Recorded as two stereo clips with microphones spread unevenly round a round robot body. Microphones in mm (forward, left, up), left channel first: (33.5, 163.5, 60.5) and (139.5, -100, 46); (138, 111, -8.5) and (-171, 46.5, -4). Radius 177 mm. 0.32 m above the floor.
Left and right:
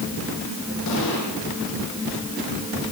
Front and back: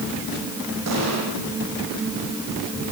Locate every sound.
0.9 s an explosion: 155° left, 10 m